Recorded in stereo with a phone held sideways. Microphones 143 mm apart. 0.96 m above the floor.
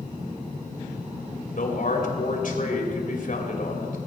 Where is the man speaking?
65° left (ahead or behind), 3 m.